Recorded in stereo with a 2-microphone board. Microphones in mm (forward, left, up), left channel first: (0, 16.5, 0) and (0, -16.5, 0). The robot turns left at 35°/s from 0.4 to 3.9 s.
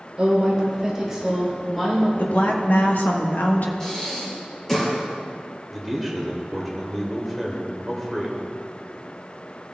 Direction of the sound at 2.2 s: 125° left.